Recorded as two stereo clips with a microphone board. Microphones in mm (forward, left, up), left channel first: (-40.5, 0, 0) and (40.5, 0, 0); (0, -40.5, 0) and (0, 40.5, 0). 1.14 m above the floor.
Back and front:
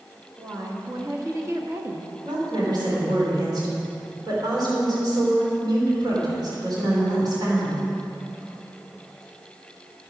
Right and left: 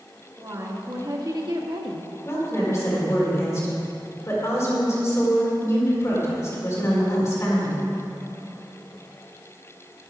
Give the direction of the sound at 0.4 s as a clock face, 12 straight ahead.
11 o'clock.